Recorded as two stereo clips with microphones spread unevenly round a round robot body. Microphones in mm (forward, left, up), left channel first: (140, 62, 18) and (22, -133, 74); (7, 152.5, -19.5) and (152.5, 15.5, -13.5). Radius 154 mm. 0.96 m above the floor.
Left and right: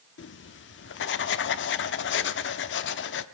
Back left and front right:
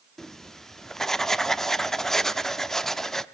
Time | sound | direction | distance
0.2 | writing | 45° left | 0.5 m